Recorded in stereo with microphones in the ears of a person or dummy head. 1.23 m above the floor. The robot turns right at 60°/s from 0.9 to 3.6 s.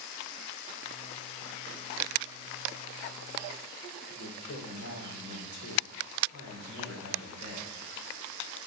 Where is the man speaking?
90° left, 3 m.